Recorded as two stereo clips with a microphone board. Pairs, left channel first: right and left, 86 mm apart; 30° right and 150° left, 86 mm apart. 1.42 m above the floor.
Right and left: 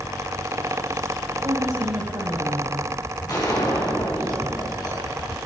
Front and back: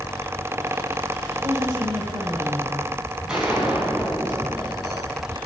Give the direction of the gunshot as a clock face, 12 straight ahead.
4 o'clock.